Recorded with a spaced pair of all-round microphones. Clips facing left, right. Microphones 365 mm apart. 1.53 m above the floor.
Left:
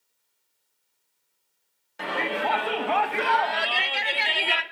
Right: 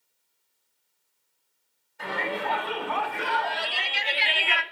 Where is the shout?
85° left, 3 m; by 4.6 s 45° left (ahead or behind), 1.1 m.